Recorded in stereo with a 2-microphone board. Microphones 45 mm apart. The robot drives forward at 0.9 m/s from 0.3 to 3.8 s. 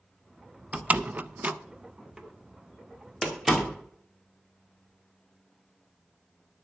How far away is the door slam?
About 0.7 m.